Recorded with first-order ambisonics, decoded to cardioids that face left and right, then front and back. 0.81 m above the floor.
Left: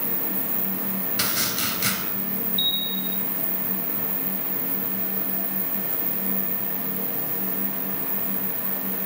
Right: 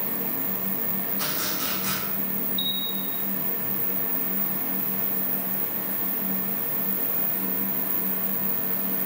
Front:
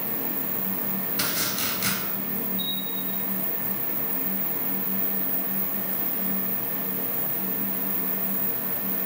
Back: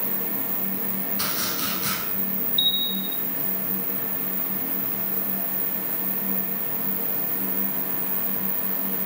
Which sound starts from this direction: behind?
A bell, at 2.6 s.